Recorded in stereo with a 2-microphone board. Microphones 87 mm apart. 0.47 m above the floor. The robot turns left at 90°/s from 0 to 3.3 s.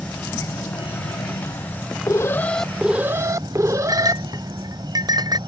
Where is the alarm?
60° left; by 4.2 s 55° right.